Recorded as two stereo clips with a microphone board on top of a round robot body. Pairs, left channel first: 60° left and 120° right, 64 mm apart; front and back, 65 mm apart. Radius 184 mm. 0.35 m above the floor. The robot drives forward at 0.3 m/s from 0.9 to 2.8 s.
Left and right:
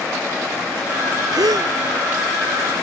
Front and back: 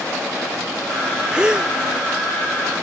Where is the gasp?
100° right; by 1.7 s 105° right.